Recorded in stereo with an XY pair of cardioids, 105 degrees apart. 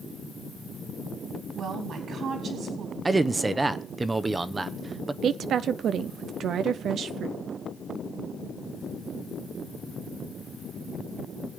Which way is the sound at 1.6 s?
60° right.